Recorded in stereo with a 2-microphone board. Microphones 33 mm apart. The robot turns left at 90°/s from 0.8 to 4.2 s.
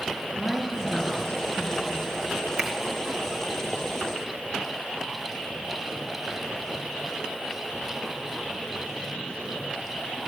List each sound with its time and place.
0.3 s a woman speaking: 155° left, 4.5 m; by 2.2 s 30° left, 4.5 m
2.6 s a finger snap: 25° right (ahead or behind), 2.5 m; by 2.7 s 30° right (ahead or behind), 2.5 m